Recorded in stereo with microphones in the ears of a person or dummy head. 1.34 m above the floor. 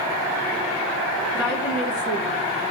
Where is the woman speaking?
50° left (ahead or behind), 1.6 m.